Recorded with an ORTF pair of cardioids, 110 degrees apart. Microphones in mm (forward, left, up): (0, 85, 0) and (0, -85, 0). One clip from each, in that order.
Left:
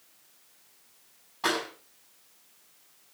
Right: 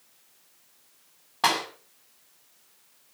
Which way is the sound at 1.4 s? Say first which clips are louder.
Right 5 dB; 65° right.